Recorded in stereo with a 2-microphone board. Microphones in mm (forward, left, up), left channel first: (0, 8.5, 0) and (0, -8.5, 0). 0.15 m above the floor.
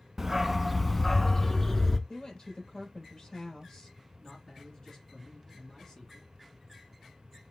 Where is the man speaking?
45° left (ahead or behind), 2.5 m.